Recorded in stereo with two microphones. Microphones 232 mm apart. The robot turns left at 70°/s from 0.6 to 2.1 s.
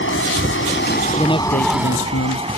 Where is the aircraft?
75° left; by 2.6 s 30° right.